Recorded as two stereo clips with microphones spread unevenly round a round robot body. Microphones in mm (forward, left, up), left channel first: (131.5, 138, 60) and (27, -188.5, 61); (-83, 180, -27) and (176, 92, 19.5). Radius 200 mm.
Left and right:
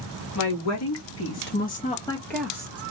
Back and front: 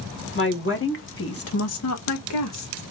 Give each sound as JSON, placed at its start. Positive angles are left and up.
{"t": 0.3, "sound": "a woman speaking", "azimuth_deg": 115, "distance_m": 1.9}